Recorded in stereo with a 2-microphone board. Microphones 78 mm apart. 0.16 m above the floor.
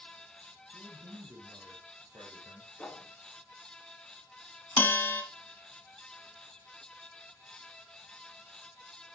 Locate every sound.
0.7 s a man speaking: 50° right (ahead or behind), 3.5 m
2.8 s a whoosh: 15° left (ahead or behind), 1.5 m
4.8 s a bell: 25° left (ahead or behind), 1.2 m